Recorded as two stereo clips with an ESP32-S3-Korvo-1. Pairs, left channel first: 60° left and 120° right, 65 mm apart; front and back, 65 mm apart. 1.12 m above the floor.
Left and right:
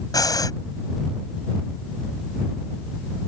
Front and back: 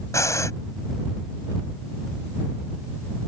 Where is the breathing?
40° left.